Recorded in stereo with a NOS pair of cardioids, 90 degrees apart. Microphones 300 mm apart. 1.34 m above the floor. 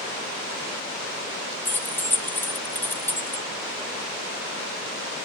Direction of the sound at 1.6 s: 5° left.